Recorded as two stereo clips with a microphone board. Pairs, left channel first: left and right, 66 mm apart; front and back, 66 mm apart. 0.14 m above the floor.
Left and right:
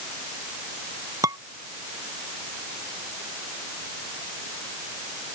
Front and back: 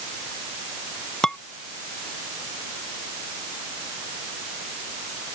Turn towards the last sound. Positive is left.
turn(degrees=-80)